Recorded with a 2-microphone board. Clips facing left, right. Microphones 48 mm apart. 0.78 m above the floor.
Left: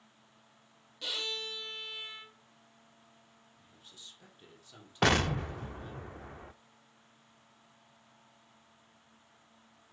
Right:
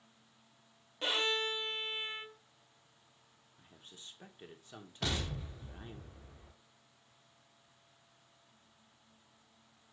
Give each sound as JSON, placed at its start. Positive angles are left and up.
{"t": 1.0, "sound": "a violin", "side_deg": -35, "distance_m": 0.7}
{"t": 3.6, "sound": "a man speaking", "side_deg": -35, "distance_m": 2.0}
{"t": 5.0, "sound": "an explosion", "side_deg": 75, "distance_m": 0.6}